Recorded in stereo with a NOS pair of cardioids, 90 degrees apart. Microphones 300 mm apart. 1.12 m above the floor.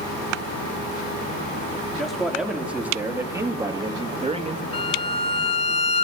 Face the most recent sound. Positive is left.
turn(degrees=20)